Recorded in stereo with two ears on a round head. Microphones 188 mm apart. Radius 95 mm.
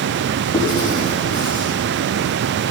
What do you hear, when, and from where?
0.5 s writing: 20° left (ahead or behind), 4.5 m